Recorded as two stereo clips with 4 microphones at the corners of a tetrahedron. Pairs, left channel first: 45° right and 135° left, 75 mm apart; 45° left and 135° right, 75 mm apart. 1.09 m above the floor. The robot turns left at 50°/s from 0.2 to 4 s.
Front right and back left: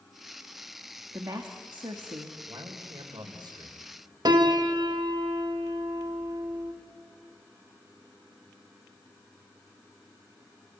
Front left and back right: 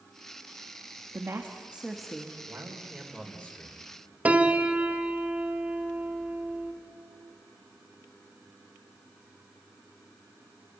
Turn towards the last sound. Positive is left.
turn(degrees=155)